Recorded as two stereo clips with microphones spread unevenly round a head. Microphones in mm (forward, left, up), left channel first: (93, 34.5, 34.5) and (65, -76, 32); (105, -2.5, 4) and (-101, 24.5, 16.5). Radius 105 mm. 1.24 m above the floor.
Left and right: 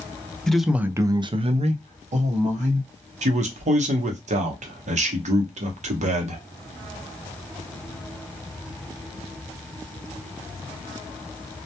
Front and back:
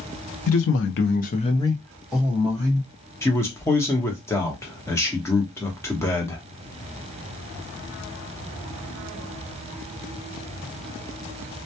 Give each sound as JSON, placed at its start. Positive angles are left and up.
{"t": 0.5, "sound": "a man speaking", "azimuth_deg": -10, "distance_m": 0.6}
{"t": 3.2, "sound": "a man speaking", "azimuth_deg": -85, "distance_m": 0.8}